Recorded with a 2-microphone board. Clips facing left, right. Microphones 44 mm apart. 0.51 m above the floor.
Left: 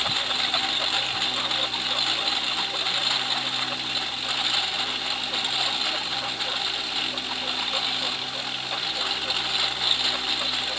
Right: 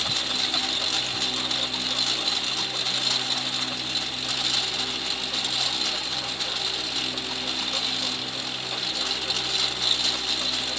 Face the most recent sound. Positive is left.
turn(degrees=15)  # may be behind; listen again after turning